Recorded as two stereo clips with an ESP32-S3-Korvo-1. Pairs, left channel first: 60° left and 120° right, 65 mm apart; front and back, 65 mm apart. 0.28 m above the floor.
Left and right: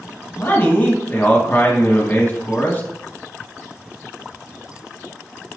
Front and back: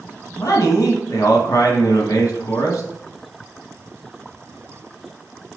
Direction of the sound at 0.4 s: 10° left.